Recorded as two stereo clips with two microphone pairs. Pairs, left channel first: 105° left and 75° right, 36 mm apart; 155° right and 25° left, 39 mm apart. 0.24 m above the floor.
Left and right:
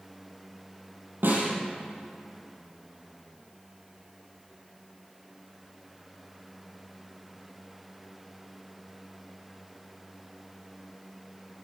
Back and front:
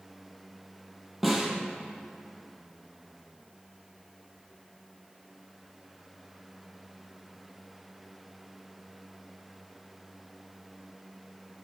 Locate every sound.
1.2 s a snare drum: 65° right, 5.5 m